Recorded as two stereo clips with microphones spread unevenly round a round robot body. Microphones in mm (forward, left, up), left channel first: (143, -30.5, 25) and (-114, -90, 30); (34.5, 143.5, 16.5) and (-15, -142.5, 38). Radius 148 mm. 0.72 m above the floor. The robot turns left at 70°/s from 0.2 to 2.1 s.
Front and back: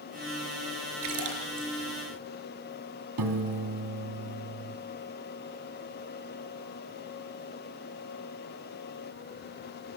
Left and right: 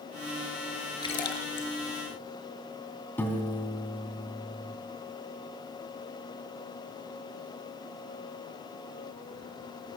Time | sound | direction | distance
1.0 | a splash | 155° left | 4.5 m
3.2 | a piano | 165° left | 3 m